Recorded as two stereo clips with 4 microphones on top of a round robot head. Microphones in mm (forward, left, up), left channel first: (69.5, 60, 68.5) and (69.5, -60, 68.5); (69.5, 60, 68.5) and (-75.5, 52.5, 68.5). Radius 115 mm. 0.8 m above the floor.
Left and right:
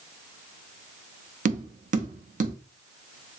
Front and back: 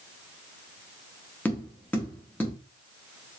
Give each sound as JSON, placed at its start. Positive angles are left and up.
{"t": 1.4, "sound": "tapping", "azimuth_deg": -80, "distance_m": 0.7}